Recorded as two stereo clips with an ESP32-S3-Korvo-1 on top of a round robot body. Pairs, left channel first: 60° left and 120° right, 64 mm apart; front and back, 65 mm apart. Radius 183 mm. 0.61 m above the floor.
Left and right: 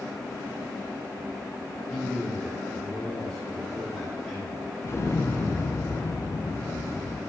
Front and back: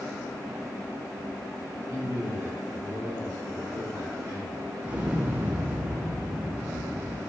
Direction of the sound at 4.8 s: 110° left.